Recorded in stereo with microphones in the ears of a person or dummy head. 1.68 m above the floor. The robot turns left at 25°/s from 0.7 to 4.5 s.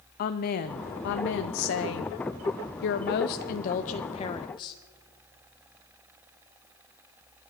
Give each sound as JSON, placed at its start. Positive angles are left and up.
{"t": 0.2, "sound": "a woman speaking", "azimuth_deg": 125, "distance_m": 0.8}